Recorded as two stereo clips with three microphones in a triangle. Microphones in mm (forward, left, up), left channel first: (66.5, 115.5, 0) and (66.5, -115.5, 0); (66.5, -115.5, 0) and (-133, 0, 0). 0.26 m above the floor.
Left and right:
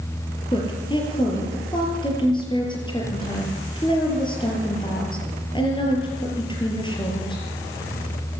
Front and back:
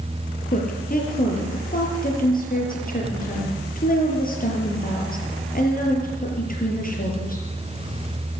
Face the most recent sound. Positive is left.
turn(degrees=20)